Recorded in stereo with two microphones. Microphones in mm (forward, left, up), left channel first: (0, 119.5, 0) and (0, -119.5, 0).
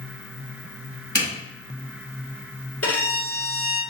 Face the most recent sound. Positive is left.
turn(degrees=85)